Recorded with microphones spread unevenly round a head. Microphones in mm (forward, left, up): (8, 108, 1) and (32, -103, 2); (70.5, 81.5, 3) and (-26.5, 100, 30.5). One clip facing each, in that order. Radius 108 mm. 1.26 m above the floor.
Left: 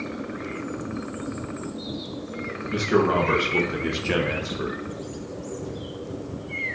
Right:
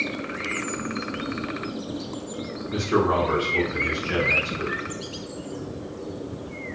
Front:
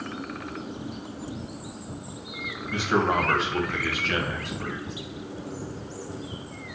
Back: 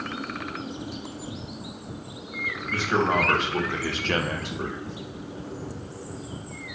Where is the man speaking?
60° left, 1.3 m; by 4.8 s 170° left, 0.7 m.